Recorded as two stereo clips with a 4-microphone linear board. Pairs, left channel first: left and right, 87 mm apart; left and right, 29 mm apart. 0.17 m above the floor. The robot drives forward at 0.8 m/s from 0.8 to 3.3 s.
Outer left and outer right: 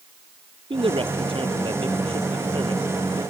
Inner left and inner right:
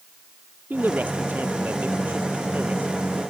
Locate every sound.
0.7 s a man speaking: 70° right (ahead or behind)